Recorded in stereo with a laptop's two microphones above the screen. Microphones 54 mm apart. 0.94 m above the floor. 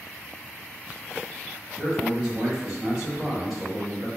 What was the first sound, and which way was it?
A man speaking, centre (ahead or behind).